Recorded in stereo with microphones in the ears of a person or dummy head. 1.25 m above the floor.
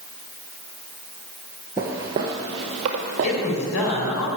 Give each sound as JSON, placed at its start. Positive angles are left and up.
{"t": 1.8, "sound": "footsteps", "side_deg": -10, "distance_m": 1.4}
{"t": 3.2, "sound": "a woman speaking", "side_deg": 85, "distance_m": 4.5}